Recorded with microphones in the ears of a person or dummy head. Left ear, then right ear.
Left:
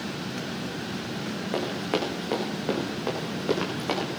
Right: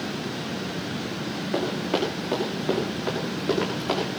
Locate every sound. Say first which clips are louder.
1.5 s running footsteps: right 2 dB; 30° left (ahead or behind), 6 m; by 4.2 s 25° left (ahead or behind), 7.5 m